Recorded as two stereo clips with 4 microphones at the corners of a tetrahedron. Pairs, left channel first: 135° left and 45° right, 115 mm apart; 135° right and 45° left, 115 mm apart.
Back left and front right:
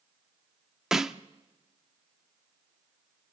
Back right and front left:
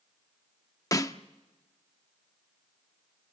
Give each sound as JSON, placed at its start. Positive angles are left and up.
{"t": 0.9, "sound": "a snare drum", "azimuth_deg": -125, "distance_m": 0.6}